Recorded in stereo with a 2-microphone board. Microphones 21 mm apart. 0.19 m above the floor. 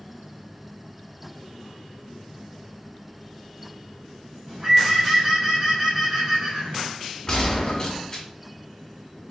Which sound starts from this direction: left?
A gunshot, at 7.3 s.